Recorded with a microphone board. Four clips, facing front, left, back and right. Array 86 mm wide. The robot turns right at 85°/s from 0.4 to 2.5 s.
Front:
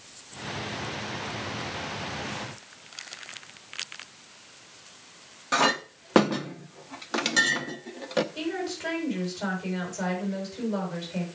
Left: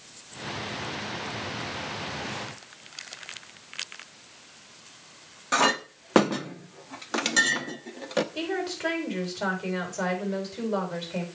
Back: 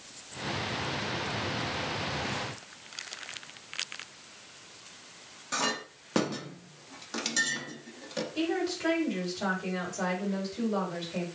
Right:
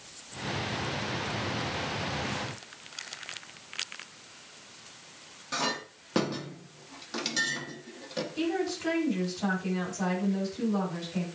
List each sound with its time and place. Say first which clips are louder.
5.5 s a clink: left 9 dB, front 8 dB; 50° left, 0.7 m
8.3 s a woman speaking: right 1 dB, back 1 dB; 90° left, 4.5 m